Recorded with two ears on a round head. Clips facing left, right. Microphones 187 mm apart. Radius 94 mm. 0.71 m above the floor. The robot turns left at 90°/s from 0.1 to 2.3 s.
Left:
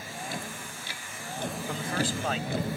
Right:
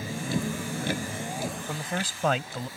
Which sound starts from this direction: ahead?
A man speaking, at 1.7 s.